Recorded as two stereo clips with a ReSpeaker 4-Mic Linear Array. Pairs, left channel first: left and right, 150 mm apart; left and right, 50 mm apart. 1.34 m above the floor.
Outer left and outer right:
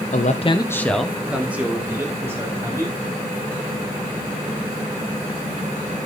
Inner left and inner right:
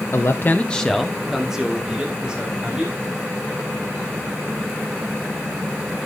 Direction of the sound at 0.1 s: 55° left (ahead or behind).